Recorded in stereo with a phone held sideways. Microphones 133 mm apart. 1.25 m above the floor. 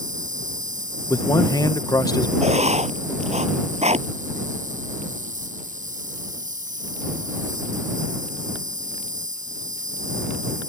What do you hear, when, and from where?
0.0 s an insect: 80° right
1.1 s a man speaking: 25° left (ahead or behind)
2.4 s writing: 55° right (ahead or behind)